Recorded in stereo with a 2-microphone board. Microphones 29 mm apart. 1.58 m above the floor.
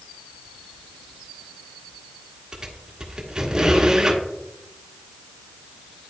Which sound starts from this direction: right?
A squeak, at 2.5 s.